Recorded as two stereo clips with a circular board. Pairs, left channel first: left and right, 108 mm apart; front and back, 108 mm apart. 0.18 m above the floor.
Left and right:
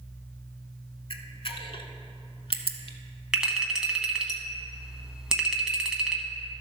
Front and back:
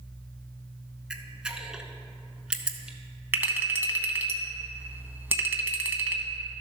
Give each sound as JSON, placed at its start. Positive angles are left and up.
{"t": 1.1, "sound": "a camera shutter", "azimuth_deg": 100, "distance_m": 0.7}
{"t": 3.3, "sound": "a clink", "azimuth_deg": -160, "distance_m": 0.8}